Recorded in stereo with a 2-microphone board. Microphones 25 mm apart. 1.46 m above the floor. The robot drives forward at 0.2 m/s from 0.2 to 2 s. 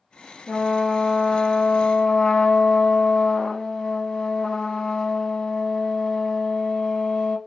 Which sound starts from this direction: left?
A trumpet, at 0.5 s.